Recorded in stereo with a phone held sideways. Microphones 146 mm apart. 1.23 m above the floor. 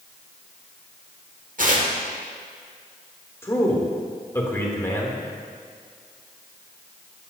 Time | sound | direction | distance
1.6 | tearing paper | 65° right (ahead or behind) | 1.5 m
3.4 | a man speaking | 20° left (ahead or behind) | 2 m